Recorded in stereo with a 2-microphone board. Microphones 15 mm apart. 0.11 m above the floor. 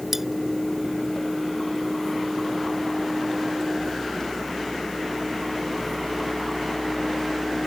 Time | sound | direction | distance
0.1 | cutlery clinking | 25° right (ahead or behind) | ?